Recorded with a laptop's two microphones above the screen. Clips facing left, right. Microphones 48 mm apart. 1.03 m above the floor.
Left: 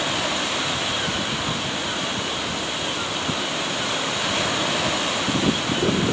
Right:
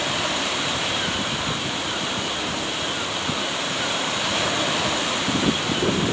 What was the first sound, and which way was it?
Only background noise.